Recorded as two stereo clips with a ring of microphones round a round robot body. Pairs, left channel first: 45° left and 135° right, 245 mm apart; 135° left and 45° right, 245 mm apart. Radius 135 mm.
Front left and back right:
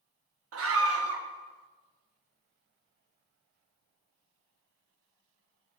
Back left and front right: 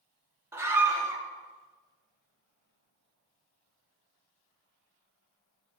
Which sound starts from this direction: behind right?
A scream, at 0.5 s.